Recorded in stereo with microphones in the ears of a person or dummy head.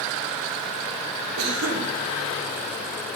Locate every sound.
1.4 s a cough: 85° right, 3 m